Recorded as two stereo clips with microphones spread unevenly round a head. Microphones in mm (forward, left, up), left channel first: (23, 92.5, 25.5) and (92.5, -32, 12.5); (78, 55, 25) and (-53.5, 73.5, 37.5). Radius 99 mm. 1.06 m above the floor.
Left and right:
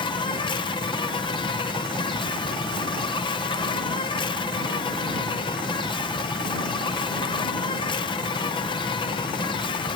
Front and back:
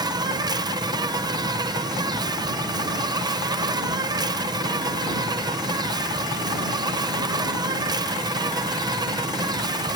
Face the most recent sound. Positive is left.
turn(degrees=140)